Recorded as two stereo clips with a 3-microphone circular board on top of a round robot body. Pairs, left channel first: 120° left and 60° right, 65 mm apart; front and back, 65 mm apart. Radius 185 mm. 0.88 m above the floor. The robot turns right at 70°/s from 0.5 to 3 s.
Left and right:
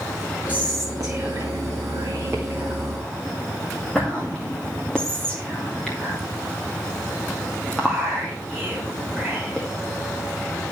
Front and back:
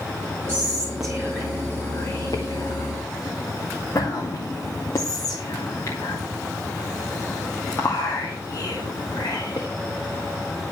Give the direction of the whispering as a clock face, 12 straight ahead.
4 o'clock.